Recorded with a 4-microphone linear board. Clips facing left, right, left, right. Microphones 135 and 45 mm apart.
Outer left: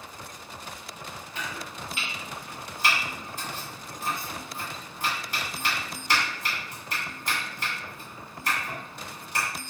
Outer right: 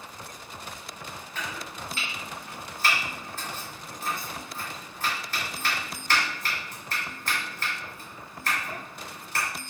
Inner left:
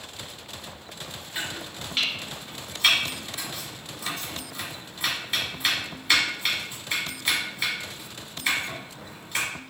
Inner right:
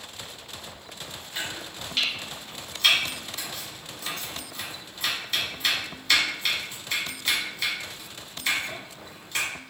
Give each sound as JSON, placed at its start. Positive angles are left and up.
{"t": 1.4, "sound": "chopping", "side_deg": 15, "distance_m": 1.2}